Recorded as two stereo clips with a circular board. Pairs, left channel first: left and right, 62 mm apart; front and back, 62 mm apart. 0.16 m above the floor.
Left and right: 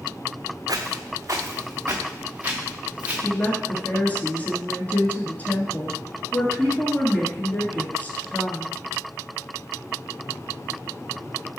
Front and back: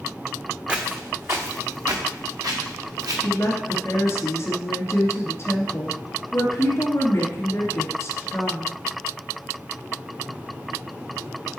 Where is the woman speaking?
30° left, 1.8 m.